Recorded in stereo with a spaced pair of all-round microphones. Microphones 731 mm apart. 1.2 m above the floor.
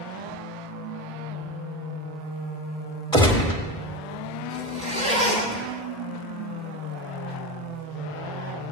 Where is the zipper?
10° right (ahead or behind), 2.0 m.